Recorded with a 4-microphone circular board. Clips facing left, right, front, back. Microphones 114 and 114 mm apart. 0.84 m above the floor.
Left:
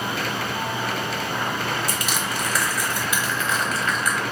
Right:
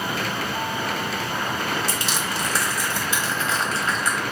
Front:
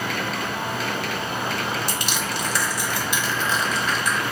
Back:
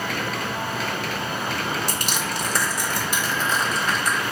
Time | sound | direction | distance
1.9 | crushing | 145° right | 1.1 m